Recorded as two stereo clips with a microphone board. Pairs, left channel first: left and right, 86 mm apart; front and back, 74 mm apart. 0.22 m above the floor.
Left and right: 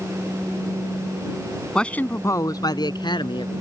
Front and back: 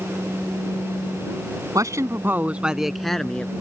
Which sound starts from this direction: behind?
A man speaking, at 1.8 s.